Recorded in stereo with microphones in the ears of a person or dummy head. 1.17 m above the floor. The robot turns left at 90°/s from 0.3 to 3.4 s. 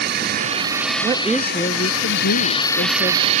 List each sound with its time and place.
0.0 s a drone: 130° right; by 3.4 s 45° right
1.0 s a woman speaking: 155° right; by 3.3 s straight ahead